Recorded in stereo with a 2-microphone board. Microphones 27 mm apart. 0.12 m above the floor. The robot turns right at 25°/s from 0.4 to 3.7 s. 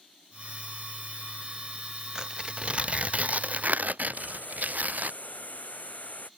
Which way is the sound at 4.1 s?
70° left (ahead or behind).